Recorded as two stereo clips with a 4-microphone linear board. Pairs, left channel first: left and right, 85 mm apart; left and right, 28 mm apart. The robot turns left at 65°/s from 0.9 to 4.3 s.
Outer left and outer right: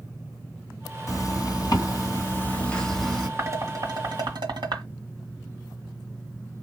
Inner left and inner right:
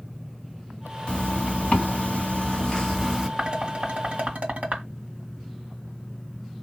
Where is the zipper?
125° left, 2.5 m; by 3.3 s 15° right, 2.5 m.